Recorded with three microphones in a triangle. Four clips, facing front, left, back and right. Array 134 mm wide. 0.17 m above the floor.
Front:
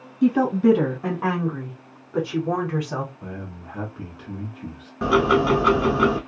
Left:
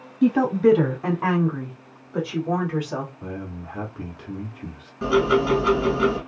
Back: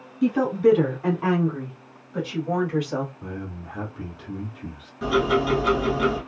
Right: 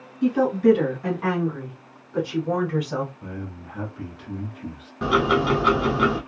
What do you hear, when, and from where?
0.2 s a woman speaking: 80° left, 1.4 m; by 3.1 s 10° right, 1.4 m
3.2 s a man speaking: 75° left, 1.1 m
5.0 s ticking: 25° right, 0.9 m